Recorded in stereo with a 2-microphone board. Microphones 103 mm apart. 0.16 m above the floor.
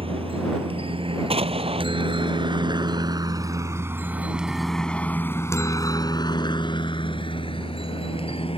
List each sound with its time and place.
0.0 s a helicopter: 65° right (ahead or behind); by 8.6 s 65° left (ahead or behind)
1.3 s an explosion: 70° right (ahead or behind)